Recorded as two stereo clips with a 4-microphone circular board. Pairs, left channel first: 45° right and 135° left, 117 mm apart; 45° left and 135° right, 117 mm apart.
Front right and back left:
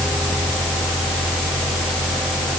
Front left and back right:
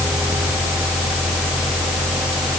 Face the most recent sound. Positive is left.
No sound to turn to.